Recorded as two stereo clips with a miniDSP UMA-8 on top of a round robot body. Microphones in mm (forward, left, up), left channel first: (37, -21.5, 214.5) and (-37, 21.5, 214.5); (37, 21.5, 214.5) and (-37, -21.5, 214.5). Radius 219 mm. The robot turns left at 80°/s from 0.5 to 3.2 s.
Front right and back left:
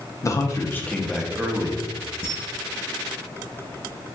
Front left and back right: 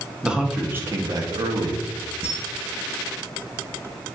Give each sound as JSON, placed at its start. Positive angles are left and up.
{"t": 0.2, "sound": "a man speaking", "azimuth_deg": -70, "distance_m": 1.0}
{"t": 2.2, "sound": "a camera shutter", "azimuth_deg": -170, "distance_m": 0.7}